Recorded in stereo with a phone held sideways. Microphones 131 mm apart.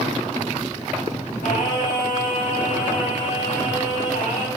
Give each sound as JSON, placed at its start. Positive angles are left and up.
{"t": 1.4, "sound": "singing", "side_deg": 70, "distance_m": 8.0}